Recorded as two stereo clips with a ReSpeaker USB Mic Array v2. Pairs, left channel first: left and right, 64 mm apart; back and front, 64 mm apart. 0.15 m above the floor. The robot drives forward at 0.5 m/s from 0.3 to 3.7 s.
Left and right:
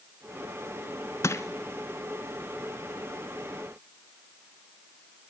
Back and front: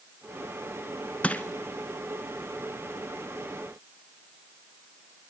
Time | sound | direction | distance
1.2 | crushing | 115° left | 0.8 m